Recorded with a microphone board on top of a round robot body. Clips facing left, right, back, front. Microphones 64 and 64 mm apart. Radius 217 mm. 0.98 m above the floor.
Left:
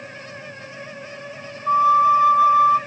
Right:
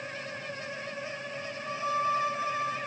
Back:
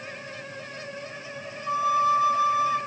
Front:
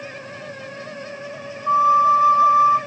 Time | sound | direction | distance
1.7 | a flute | 55° left | 0.6 m